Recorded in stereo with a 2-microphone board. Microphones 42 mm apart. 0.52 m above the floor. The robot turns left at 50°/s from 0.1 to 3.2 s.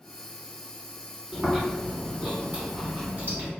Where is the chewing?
Straight ahead, 1.8 m; by 3.5 s 95° right, 1.8 m.